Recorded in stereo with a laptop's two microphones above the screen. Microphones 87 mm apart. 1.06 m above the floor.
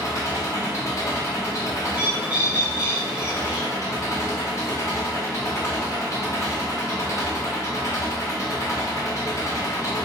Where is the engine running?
40° left (ahead or behind), 0.8 m.